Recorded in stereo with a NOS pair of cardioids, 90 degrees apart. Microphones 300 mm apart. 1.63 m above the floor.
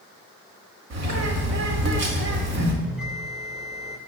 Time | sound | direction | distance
0.9 | a bird | 65° right | 2 m
2.8 | a bell | 5° right | 2.5 m